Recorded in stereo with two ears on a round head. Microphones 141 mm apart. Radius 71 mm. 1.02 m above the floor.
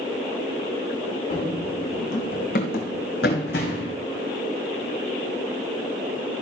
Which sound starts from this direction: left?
Running footsteps, at 1.3 s.